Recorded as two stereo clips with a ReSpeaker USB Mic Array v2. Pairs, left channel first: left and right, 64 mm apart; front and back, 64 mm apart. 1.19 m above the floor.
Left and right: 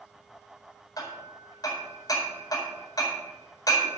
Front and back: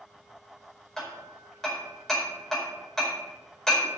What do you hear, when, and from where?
1.0 s hammering: 85° left, 4.5 m